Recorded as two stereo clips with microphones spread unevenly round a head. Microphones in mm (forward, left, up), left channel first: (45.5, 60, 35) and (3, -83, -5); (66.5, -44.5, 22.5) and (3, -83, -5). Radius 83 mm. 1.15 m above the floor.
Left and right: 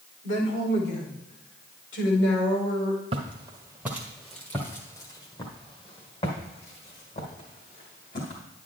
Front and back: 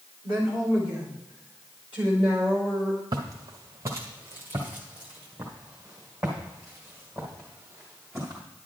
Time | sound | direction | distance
0.2 | a woman speaking | 75° left | 3.5 m
3.1 | footsteps | 155° right | 1.2 m